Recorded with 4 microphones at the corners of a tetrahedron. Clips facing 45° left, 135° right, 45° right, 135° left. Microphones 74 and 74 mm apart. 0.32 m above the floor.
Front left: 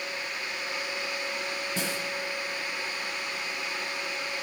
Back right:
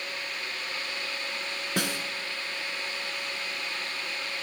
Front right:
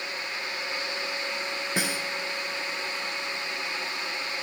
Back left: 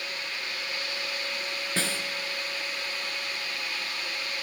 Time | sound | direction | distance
1.8 | a snare drum | 120° right | 1.4 m